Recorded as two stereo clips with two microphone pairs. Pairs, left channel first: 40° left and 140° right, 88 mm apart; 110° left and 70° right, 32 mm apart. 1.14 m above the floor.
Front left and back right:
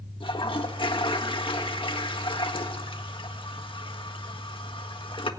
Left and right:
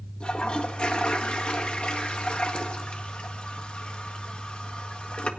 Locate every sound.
0.2 s a toilet flushing: 55° left, 1.6 m